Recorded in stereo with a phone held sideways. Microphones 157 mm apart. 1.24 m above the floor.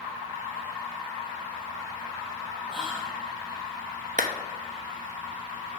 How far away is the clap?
About 0.9 m.